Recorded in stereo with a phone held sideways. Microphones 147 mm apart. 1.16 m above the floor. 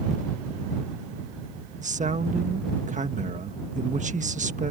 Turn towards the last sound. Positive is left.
turn(degrees=-60)  # may be behind; listen again after turning